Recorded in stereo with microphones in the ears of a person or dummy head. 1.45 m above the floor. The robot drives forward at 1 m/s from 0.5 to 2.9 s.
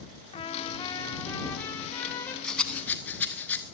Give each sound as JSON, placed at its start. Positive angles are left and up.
{"t": 0.3, "sound": "a trumpet", "side_deg": 30, "distance_m": 1.0}
{"t": 2.4, "sound": "a rattle", "side_deg": 0, "distance_m": 1.1}